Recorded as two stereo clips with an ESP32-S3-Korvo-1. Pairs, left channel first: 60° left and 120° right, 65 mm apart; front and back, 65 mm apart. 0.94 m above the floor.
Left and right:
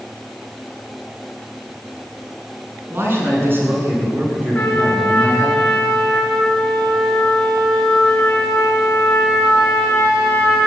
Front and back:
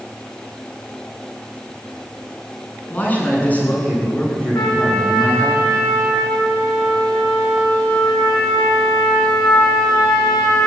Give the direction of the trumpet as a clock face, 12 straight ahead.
12 o'clock.